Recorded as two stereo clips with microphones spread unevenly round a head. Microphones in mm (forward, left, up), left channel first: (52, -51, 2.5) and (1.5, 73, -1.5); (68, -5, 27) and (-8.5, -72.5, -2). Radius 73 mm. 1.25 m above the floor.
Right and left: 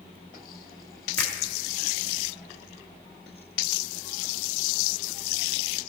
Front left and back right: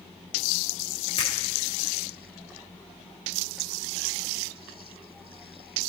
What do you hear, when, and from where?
1.2 s a finger snap: 15° left, 1.2 m